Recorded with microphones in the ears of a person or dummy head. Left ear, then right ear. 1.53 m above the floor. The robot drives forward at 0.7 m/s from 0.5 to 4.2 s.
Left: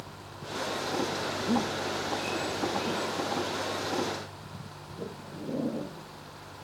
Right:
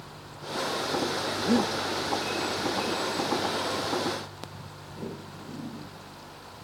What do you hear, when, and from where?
1.4 s breathing: 85° right; by 1.7 s 80° right